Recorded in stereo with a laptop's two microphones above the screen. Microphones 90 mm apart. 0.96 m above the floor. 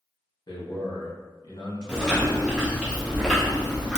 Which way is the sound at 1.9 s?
10° right (ahead or behind).